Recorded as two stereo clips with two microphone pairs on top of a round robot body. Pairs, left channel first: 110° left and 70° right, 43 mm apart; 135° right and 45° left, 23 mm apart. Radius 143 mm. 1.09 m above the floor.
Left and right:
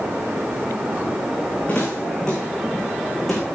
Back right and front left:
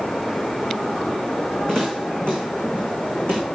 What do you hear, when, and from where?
1.7 s footsteps: 175° left, 3.5 m; by 3.4 s 165° right, 3.5 m